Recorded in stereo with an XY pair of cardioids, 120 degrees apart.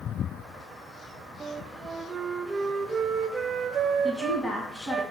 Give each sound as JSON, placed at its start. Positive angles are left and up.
{"t": 1.4, "sound": "a flute", "azimuth_deg": -35, "distance_m": 0.6}
{"t": 4.0, "sound": "a woman speaking", "azimuth_deg": 15, "distance_m": 2.0}